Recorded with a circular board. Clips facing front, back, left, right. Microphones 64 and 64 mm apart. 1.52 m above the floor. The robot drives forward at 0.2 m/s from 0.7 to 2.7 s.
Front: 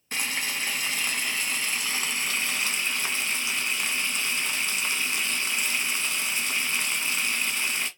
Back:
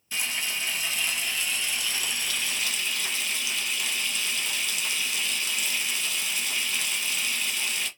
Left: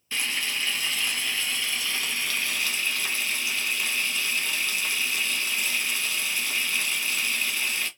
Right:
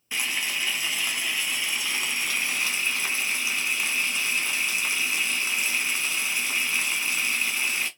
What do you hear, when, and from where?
0.1 s frying: 20° right, 1.1 m; by 7.9 s 35° right, 0.8 m